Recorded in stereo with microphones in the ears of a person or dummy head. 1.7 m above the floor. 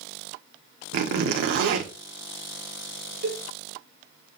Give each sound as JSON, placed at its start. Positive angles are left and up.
{"t": 0.9, "sound": "a zipper", "side_deg": -55, "distance_m": 1.0}
{"t": 3.2, "sound": "a cowbell", "side_deg": -50, "distance_m": 1.5}